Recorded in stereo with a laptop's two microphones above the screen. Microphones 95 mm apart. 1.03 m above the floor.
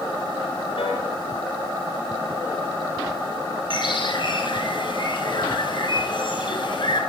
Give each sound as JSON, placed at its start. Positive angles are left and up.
{"t": 0.8, "sound": "a piano", "side_deg": 75, "distance_m": 5.5}
{"t": 3.7, "sound": "a bird", "side_deg": 60, "distance_m": 5.0}